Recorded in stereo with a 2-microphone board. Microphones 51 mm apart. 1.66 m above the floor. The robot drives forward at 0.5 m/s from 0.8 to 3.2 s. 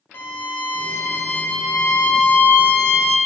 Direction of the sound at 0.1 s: 45° left (ahead or behind).